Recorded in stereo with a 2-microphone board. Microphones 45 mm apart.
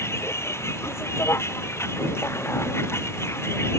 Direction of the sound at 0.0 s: 90° left.